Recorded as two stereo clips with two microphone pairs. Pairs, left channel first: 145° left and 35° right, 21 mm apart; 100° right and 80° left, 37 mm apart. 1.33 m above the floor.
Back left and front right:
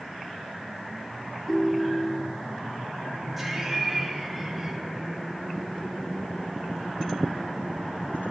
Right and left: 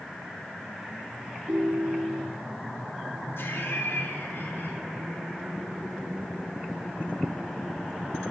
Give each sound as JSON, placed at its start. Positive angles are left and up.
{"t": 1.5, "sound": "a ringtone", "azimuth_deg": 70, "distance_m": 1.4}
{"t": 3.4, "sound": "laughter", "azimuth_deg": -115, "distance_m": 2.5}